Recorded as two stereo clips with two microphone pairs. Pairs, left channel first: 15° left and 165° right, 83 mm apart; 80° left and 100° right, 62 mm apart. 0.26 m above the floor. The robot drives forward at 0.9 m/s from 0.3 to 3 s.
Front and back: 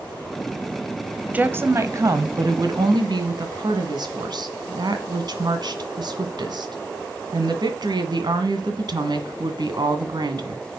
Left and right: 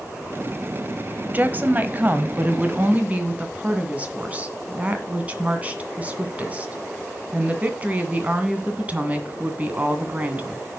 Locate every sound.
1.3 s a woman speaking: 115° right, 1.2 m; by 10.7 s 165° right, 2 m